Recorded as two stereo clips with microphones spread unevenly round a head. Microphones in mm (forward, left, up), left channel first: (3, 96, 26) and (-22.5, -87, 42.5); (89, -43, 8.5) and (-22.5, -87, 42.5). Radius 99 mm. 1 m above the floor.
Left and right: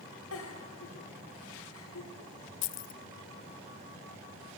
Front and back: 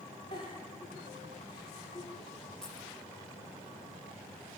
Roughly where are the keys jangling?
Left.